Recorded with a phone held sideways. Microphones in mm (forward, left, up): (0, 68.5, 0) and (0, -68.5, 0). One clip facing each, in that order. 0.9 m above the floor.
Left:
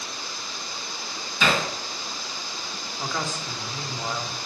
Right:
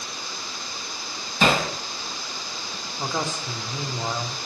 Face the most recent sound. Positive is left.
turn(degrees=-20)  # may be behind; listen again after turning